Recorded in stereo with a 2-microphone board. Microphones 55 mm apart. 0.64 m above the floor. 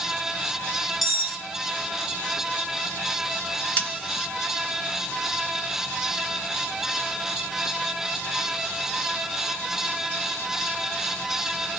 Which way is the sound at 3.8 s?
25° left (ahead or behind).